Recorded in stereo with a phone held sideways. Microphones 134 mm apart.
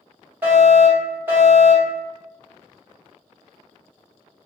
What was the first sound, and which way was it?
A fire alarm, 15° right (ahead or behind).